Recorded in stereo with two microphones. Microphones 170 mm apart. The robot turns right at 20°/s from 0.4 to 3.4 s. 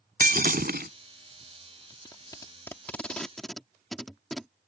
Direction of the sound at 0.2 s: 65° right (ahead or behind).